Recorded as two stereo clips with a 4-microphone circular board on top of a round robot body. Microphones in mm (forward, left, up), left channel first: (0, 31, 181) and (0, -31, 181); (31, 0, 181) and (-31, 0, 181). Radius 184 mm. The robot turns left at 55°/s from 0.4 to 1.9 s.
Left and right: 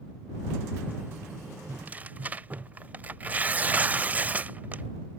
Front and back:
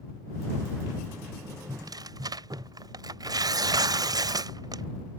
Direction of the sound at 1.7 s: 145° right.